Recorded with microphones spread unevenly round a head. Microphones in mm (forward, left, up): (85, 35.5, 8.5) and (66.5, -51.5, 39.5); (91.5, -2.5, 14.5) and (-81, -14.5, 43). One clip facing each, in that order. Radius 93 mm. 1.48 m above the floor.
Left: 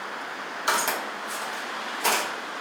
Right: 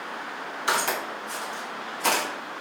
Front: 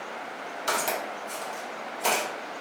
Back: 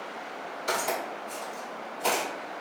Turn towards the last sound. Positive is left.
turn(degrees=-85)